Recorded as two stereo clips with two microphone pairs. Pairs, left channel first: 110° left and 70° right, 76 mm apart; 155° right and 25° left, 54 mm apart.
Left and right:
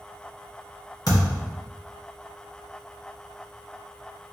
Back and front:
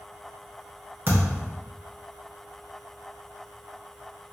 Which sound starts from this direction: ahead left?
A thud, at 1.1 s.